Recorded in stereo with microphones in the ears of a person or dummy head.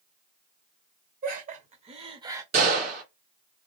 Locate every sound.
1.2 s laughter: 45° right (ahead or behind), 1.0 m; by 2.4 s 15° right (ahead or behind), 0.6 m
2.5 s a gunshot: 45° right (ahead or behind), 2 m